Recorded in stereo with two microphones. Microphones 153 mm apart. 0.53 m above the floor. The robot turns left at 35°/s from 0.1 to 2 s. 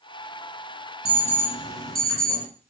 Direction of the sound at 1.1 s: 45° right.